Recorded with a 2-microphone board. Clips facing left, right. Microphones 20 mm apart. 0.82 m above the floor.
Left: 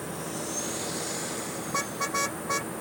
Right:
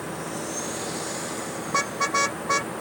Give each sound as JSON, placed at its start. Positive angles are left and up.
{"t": 1.7, "sound": "a car horn", "side_deg": -25}